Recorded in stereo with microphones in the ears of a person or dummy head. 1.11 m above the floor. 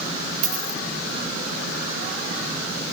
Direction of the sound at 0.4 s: 40° right (ahead or behind).